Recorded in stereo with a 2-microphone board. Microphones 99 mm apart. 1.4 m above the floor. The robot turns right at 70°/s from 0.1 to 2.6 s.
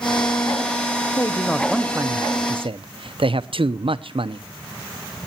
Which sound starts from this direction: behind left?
A man speaking, at 1.2 s.